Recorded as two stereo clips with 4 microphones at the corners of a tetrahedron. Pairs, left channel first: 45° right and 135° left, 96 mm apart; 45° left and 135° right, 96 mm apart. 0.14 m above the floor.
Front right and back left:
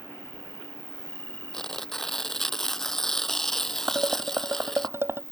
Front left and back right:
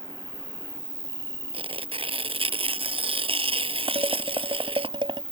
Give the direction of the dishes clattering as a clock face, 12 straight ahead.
5 o'clock.